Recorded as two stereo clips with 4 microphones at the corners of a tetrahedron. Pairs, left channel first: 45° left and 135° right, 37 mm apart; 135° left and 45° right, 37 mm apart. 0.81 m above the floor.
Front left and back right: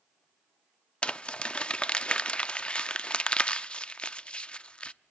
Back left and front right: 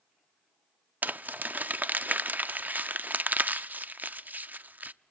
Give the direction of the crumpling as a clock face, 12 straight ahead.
12 o'clock.